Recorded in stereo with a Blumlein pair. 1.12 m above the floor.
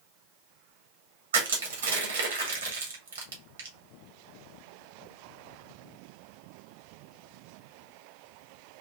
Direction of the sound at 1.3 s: 65° right.